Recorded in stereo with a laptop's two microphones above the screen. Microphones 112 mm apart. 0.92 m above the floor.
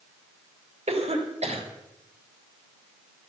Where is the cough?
70° right (ahead or behind), 3.5 m.